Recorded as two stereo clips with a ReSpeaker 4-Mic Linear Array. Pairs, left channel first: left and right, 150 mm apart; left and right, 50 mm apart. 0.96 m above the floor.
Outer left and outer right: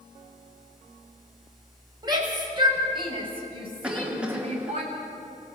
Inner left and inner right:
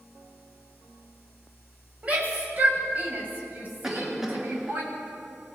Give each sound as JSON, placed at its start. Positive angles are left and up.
{"t": 2.0, "sound": "a shout", "side_deg": -25, "distance_m": 6.5}
{"t": 3.8, "sound": "a cough", "side_deg": -5, "distance_m": 1.5}